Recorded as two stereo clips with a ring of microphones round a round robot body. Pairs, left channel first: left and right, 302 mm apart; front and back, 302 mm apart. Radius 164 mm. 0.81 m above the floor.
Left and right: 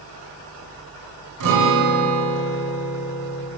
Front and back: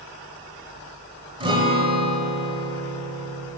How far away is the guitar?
About 1.4 m.